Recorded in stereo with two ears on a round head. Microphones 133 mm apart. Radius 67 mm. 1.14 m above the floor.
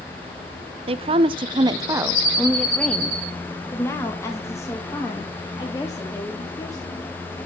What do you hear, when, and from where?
0.9 s a woman speaking: 40° right (ahead or behind), 0.9 m; by 7.1 s 25° left (ahead or behind), 3.5 m